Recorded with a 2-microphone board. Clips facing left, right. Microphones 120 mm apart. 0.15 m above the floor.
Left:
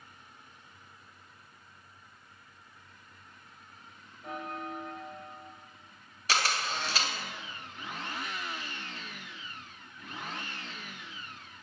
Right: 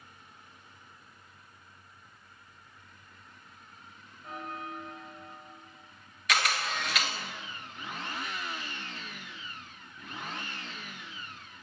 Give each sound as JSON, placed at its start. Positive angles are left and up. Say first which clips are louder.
{"t": 4.2, "sound": "a bell", "louder": "left 2 dB", "side_deg": 65, "distance_m": 2.0}
{"t": 6.3, "sound": "a camera shutter", "louder": "right 1 dB", "side_deg": 30, "distance_m": 1.4}